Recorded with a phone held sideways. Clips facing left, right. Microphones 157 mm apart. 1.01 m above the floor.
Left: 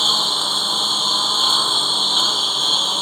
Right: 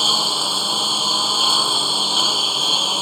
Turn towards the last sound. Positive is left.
turn(degrees=-10)  # may be behind; listen again after turning